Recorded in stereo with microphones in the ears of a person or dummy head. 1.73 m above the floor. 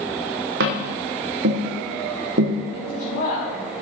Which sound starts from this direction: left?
A woman speaking, at 2.7 s.